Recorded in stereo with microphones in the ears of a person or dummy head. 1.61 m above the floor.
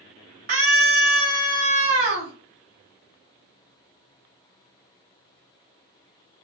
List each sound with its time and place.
0.5 s a scream: 35° right (ahead or behind), 1.0 m